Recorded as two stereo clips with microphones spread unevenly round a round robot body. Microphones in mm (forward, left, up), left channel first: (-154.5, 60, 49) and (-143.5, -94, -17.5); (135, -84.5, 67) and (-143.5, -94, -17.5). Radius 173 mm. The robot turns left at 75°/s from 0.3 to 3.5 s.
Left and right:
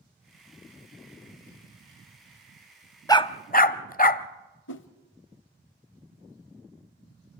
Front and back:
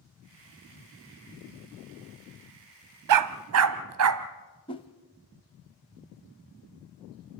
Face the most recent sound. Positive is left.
turn(degrees=80)